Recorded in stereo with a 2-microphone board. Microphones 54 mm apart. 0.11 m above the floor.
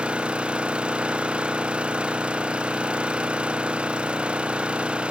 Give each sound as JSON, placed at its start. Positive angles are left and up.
{"t": 0.0, "sound": "an engine running", "side_deg": -20}